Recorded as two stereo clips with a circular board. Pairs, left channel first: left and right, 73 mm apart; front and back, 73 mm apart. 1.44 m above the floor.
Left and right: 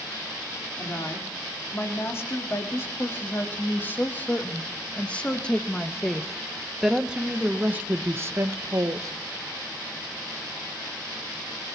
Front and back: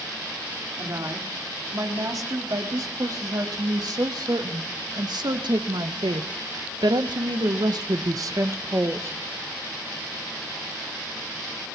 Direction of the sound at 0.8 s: 145° left.